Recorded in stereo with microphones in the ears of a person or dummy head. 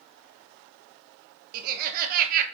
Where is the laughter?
45° right (ahead or behind), 0.6 m.